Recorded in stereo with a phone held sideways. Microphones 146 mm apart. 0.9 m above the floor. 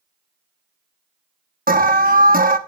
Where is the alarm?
75° right (ahead or behind), 1.1 m.